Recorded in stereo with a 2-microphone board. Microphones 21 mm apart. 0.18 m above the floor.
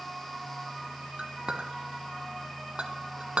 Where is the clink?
50° right (ahead or behind), 1.4 m.